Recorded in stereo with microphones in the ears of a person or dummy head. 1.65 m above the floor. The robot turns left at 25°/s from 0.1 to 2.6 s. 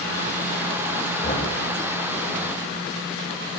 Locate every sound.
1.2 s knocking: 40° left (ahead or behind), 2.5 m; by 1.6 s 35° left (ahead or behind), 2.5 m